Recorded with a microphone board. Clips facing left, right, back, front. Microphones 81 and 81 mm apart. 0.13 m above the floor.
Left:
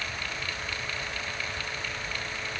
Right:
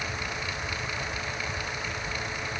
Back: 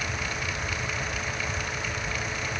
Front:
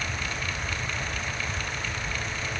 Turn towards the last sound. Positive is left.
No sound to turn to.